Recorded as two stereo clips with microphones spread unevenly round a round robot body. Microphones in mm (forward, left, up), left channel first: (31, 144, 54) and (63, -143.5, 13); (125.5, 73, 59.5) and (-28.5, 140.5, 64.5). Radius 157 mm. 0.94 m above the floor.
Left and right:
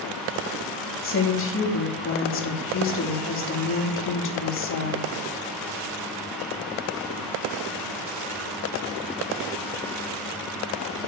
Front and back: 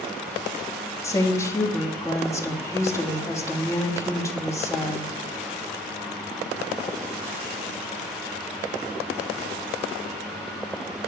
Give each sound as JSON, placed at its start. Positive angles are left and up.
{"t": 1.0, "sound": "a woman speaking", "azimuth_deg": 50, "distance_m": 2.0}